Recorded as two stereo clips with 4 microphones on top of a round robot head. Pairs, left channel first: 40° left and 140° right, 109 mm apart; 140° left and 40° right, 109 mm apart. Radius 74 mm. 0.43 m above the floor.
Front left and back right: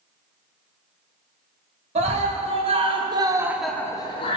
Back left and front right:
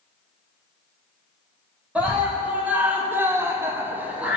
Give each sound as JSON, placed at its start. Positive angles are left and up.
{"t": 1.9, "sound": "a scream", "azimuth_deg": -120, "distance_m": 3.0}